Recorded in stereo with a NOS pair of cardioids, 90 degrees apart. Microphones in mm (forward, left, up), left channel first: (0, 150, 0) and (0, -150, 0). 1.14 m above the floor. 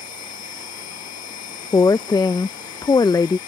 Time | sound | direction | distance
0.0 | a machine running | 65° left | ?
1.7 | a woman speaking | 15° left | ?